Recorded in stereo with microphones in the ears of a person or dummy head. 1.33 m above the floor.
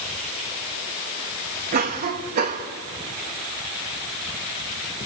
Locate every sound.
1.7 s a cough: 40° right (ahead or behind), 1.6 m